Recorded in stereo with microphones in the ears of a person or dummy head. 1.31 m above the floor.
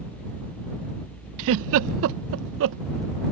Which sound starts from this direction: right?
A giggle, at 1.4 s.